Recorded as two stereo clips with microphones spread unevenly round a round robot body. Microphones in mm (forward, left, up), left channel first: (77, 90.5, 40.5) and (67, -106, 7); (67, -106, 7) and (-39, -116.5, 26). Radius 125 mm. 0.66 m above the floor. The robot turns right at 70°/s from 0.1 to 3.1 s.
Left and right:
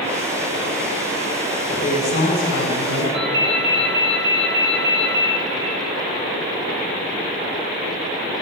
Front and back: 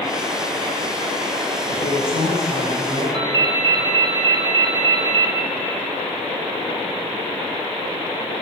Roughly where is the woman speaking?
Ahead.